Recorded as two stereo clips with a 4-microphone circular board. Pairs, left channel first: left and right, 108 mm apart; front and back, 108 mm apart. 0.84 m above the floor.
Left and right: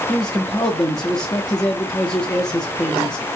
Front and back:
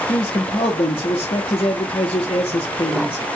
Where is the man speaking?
40° left, 0.9 m.